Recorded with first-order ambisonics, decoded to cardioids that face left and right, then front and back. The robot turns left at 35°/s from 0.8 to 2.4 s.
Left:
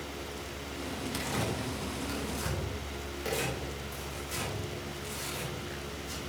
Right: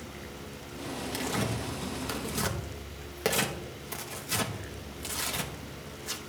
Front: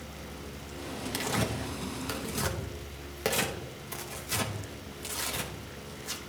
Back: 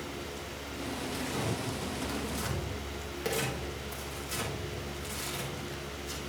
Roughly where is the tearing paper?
Ahead.